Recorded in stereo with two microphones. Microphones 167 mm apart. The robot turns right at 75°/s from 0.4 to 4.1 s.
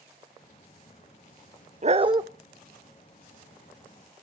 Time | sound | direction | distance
1.8 | a dog barking | 55° right | 0.6 m